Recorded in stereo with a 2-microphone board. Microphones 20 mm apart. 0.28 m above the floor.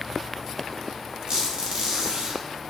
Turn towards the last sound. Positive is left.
turn(degrees=-75)  # may be behind; listen again after turning